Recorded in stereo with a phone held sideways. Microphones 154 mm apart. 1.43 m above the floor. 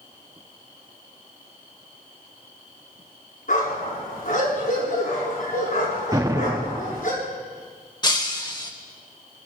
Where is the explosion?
20° right (ahead or behind), 0.6 m.